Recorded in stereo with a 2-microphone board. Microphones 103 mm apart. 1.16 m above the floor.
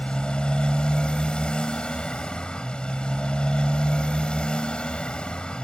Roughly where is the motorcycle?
Centre.